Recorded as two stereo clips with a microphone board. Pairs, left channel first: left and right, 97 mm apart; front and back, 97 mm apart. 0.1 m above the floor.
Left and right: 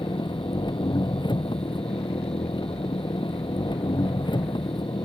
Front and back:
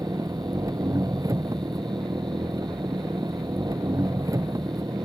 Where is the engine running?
125° left.